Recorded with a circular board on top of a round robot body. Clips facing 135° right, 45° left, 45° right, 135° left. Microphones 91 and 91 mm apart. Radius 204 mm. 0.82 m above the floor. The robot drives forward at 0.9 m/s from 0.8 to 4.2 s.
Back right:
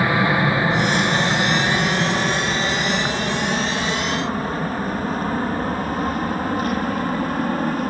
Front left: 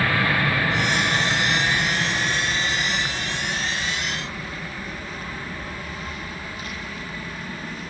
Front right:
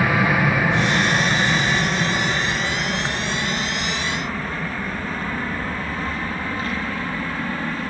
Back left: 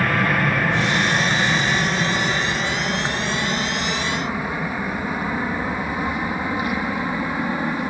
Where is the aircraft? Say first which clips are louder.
Back right 4 dB, front right 1 dB; 120° right; by 7.9 s 155° right.